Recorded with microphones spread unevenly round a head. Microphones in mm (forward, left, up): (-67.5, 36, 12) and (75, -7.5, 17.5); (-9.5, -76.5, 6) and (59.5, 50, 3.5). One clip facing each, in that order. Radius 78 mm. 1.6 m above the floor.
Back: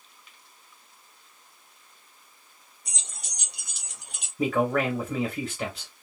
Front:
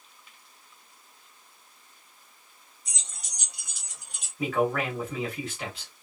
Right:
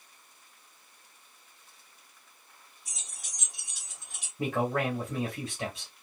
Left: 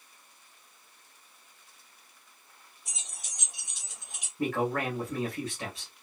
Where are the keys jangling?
130° left, 1.7 m; by 4.3 s 135° left, 1.0 m.